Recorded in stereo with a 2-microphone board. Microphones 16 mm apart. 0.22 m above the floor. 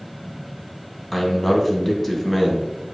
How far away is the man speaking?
About 1.5 m.